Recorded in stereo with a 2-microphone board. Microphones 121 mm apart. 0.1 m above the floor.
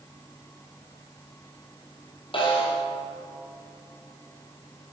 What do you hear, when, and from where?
2.3 s a snare drum: 45° left (ahead or behind), 1.7 m